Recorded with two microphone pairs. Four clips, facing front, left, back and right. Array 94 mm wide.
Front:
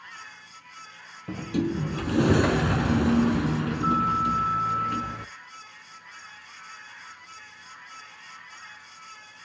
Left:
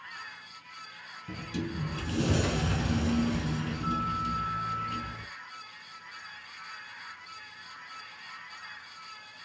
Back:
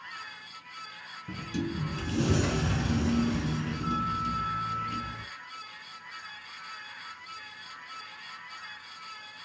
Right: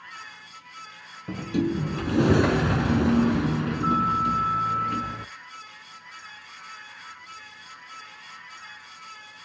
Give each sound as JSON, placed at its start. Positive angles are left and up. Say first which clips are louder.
{"t": 1.3, "sound": "a sliding door", "louder": "right 10 dB, front 7 dB", "azimuth_deg": -50, "distance_m": 0.7}